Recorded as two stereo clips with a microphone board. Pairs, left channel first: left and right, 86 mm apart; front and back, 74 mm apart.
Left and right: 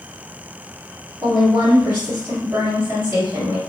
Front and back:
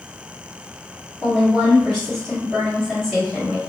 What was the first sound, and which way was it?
A woman speaking, 85° right.